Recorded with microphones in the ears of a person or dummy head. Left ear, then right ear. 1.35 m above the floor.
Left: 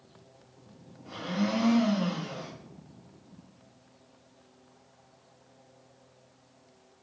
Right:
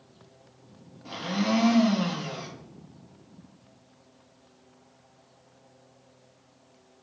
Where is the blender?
45° right (ahead or behind), 0.8 m.